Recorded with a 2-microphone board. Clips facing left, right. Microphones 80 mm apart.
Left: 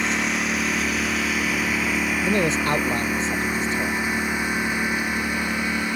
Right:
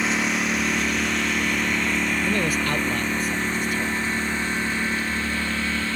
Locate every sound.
0.0 s a lawn mower: centre (ahead or behind); by 6.0 s 15° left (ahead or behind)
2.2 s a man speaking: 25° left (ahead or behind)